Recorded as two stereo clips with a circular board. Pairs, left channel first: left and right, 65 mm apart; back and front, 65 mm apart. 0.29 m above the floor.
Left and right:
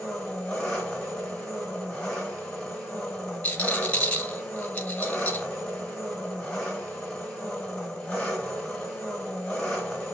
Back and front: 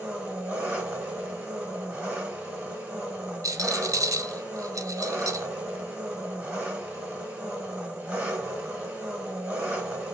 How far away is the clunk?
No clunk in this recording.